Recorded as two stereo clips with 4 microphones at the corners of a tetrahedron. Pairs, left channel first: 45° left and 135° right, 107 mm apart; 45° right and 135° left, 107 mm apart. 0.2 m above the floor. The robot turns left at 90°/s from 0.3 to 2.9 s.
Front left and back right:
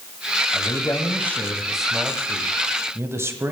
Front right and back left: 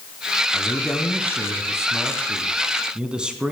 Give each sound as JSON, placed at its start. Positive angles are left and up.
{"t": 0.5, "sound": "a man speaking", "azimuth_deg": 60, "distance_m": 1.1}